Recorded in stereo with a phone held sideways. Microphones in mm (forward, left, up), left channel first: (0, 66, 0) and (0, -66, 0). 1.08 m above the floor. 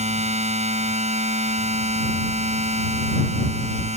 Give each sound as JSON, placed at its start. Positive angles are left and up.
{"t": 0.0, "sound": "a machine running", "side_deg": -60}